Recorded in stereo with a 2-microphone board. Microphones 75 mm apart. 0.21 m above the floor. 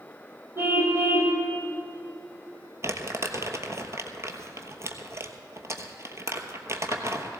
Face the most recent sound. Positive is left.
turn(degrees=-40)  # may be behind; listen again after turning